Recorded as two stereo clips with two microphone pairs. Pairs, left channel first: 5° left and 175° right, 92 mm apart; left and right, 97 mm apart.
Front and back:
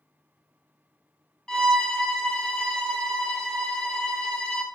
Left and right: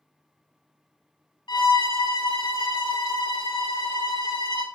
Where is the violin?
85° left, 1.2 m.